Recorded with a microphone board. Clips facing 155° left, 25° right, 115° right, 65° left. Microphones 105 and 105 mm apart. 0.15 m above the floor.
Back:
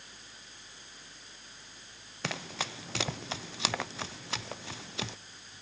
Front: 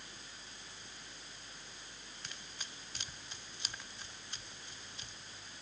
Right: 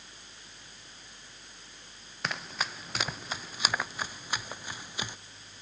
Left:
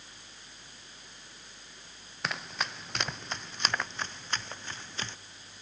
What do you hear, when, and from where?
2.2 s running footsteps: 155° left; by 5.2 s 170° left